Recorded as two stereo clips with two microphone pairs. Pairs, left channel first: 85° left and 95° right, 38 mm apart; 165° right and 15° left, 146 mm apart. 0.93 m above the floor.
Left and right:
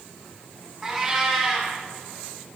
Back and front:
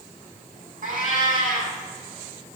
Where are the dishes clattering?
I don't hear dishes clattering.